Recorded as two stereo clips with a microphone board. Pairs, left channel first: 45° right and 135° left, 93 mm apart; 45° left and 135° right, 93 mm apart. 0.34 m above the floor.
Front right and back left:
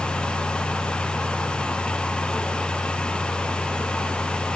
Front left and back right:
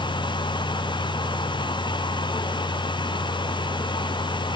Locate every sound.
Only background noise.